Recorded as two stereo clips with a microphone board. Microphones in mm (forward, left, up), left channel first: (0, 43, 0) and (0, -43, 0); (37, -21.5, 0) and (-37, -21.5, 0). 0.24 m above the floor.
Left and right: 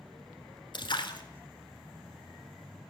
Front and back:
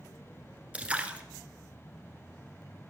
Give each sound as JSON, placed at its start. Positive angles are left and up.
{"t": 0.7, "sound": "a splash", "azimuth_deg": 110, "distance_m": 0.9}